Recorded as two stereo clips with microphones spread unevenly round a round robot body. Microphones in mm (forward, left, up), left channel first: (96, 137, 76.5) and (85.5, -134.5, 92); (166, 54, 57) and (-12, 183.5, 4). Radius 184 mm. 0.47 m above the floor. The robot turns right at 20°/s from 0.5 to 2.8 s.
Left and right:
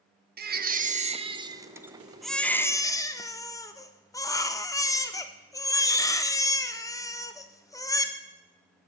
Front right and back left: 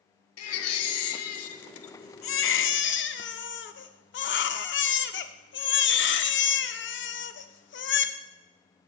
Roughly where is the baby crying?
Ahead right.